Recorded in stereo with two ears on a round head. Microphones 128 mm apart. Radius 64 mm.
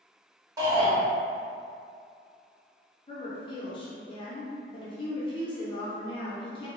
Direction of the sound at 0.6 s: 25° right (ahead or behind).